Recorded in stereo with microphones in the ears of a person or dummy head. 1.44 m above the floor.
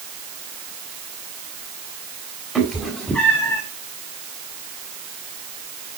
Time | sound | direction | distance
2.5 | a cat meowing | 5° right (ahead or behind) | 1.8 m